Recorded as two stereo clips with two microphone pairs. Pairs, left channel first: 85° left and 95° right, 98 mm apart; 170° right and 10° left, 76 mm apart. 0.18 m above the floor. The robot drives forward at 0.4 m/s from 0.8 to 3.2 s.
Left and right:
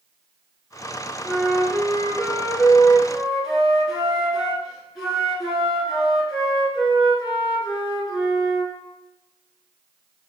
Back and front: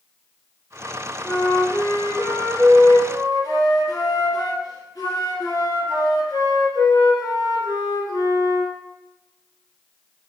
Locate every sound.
1.2 s a flute: 155° left, 0.6 m; by 8.7 s 175° left, 1.1 m